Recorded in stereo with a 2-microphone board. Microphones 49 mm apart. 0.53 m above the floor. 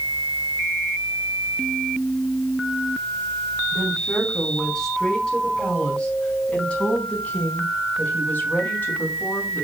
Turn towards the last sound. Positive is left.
turn(degrees=45)  # may be behind; listen again after turning